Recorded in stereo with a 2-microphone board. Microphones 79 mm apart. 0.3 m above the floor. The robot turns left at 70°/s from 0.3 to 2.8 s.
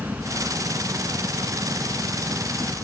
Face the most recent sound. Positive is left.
turn(degrees=160)